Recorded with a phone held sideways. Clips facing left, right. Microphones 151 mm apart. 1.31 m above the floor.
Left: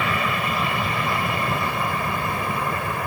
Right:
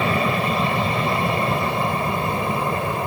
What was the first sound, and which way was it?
An aircraft, 30° right (ahead or behind).